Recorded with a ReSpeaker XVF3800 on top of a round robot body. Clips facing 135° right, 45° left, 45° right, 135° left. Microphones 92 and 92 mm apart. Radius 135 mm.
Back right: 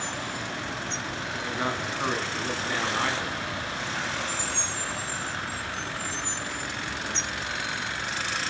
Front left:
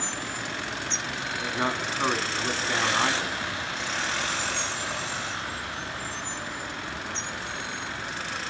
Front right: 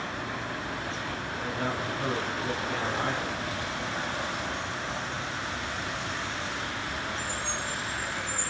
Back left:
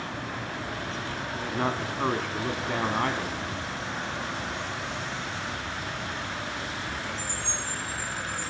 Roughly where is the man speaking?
Behind left.